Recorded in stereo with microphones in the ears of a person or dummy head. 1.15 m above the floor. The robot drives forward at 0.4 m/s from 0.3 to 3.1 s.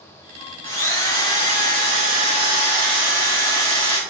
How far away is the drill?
About 0.8 m.